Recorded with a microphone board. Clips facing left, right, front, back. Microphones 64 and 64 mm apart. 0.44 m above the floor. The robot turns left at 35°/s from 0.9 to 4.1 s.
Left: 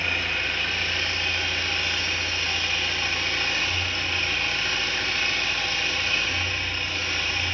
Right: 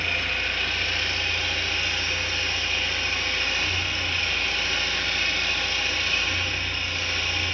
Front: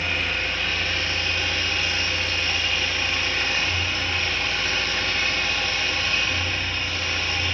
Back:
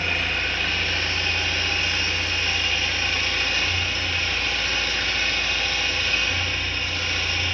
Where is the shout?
I don't hear a shout.